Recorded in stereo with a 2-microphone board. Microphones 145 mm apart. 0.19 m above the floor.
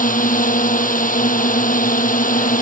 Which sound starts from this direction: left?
A drone, at 0.0 s.